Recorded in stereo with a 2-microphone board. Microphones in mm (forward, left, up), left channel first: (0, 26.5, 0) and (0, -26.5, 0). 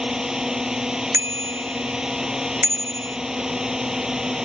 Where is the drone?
10° right (ahead or behind).